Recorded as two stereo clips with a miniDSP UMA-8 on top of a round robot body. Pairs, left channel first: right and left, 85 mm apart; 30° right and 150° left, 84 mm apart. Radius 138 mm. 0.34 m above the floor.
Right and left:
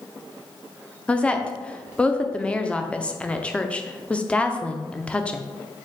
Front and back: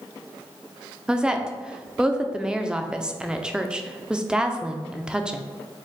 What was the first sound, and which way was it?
A woman speaking, 145° right.